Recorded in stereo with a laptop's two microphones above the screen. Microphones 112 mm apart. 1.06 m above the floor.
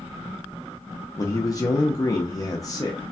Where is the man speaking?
30° left (ahead or behind), 0.5 m.